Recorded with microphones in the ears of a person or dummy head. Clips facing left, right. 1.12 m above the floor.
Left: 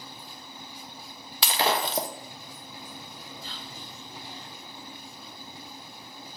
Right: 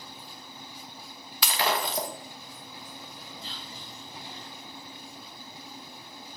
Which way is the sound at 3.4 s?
25° right (ahead or behind).